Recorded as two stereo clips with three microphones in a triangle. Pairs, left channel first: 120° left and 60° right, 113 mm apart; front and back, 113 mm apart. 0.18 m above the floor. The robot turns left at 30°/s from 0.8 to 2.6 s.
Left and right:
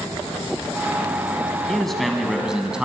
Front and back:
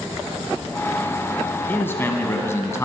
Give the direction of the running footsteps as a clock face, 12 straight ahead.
I don't hear running footsteps.